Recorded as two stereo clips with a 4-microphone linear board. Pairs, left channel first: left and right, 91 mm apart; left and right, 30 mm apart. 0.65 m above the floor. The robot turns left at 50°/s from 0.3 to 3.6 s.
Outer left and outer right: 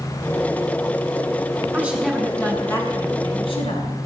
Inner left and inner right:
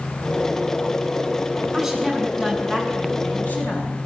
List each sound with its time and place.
1.7 s a woman speaking: 160° right, 6.5 m; by 4.0 s 105° left, 6.5 m